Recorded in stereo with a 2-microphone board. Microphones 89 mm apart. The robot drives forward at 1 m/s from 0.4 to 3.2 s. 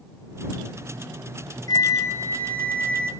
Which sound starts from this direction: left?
A flute, at 1.7 s.